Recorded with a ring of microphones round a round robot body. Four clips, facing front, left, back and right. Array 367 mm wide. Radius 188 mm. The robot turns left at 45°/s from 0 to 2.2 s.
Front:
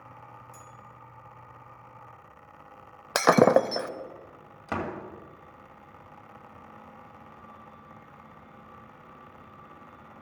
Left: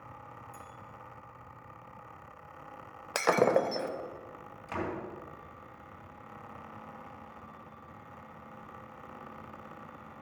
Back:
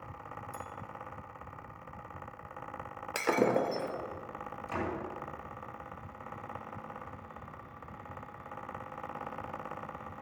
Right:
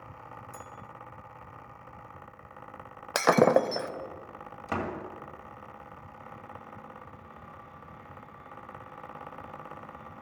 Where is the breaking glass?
25° right, 0.5 m.